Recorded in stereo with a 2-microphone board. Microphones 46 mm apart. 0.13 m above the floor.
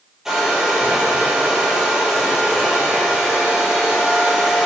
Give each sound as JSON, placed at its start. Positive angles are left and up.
{"t": 0.2, "sound": "a hair dryer", "side_deg": -10, "distance_m": 2.5}